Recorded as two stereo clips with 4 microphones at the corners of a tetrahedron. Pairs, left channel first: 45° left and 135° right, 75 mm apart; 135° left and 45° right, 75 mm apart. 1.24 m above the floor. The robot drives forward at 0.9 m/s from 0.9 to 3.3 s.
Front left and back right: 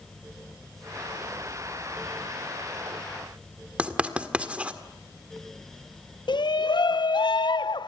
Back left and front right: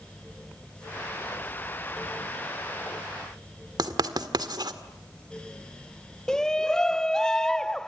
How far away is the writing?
About 1.8 m.